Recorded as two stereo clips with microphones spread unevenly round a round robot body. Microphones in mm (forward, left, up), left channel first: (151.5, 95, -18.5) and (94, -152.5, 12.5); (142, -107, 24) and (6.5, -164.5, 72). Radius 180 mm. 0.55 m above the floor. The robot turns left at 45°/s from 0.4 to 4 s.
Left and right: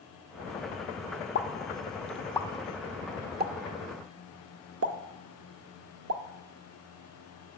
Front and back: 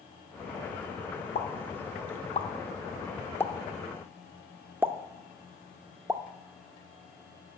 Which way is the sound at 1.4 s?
45° left.